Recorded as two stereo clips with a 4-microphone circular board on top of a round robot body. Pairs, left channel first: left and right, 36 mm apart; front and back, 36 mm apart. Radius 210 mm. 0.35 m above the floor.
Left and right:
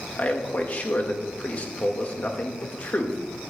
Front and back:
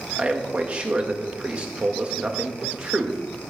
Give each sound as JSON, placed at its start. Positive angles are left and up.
{"t": 0.2, "sound": "a man speaking", "azimuth_deg": 130, "distance_m": 2.0}